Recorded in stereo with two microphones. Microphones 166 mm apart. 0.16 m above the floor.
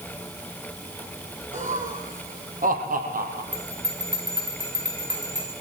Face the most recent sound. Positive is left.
turn(degrees=-30)  # may be behind; listen again after turning